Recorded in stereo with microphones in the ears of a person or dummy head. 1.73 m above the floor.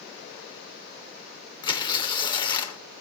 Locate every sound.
1.6 s tearing paper: 25° left (ahead or behind), 0.6 m